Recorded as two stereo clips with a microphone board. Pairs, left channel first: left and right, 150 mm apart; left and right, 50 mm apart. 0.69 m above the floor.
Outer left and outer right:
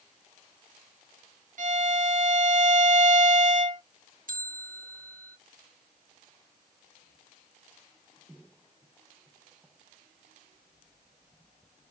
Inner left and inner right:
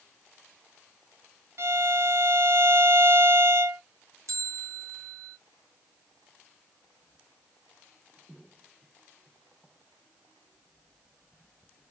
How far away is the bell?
About 0.7 m.